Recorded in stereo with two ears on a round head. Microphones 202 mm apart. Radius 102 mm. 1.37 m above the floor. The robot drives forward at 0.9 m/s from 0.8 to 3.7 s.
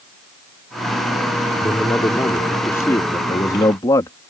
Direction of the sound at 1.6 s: 10° left (ahead or behind).